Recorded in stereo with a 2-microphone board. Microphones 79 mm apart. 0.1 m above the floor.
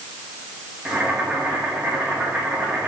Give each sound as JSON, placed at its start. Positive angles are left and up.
{"t": 0.8, "sound": "boiling", "side_deg": -15, "distance_m": 3.5}